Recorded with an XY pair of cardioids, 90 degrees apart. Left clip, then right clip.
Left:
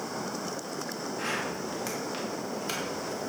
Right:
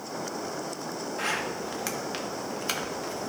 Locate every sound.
1.2 s a zipper: 50° right, 1.5 m